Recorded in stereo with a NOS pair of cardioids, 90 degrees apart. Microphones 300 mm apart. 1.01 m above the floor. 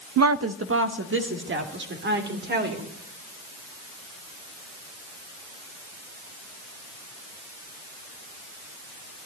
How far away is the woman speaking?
About 0.5 m.